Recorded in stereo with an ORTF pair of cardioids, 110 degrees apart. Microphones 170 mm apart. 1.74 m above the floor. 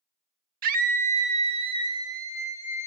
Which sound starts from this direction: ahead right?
A scream, at 0.6 s.